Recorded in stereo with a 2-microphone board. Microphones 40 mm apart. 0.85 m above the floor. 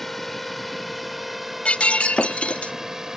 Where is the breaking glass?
25° left (ahead or behind).